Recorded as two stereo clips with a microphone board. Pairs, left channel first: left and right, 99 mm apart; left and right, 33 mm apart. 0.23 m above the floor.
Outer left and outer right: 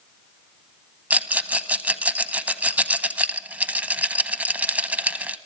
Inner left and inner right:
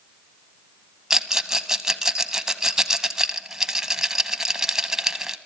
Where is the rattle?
15° right (ahead or behind), 0.8 m.